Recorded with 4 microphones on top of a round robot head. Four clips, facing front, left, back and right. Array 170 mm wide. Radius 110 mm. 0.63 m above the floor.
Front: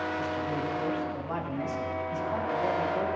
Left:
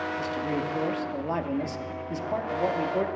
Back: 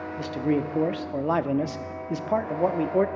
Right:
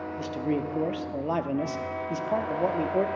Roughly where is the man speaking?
Behind.